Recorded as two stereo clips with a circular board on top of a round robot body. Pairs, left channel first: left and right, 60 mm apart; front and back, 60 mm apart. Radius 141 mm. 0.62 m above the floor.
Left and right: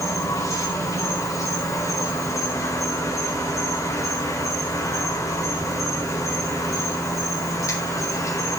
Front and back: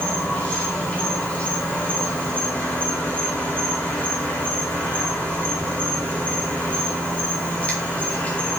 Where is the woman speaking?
I don't hear a woman speaking.